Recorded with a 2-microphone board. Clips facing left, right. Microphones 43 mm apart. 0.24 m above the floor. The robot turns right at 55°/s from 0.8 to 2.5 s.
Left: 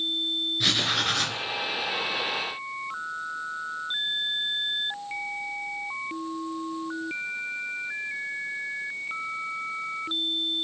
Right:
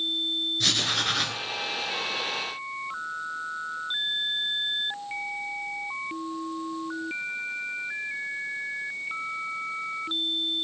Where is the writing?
165° left, 1.4 m; by 1.4 s 165° right, 1.4 m.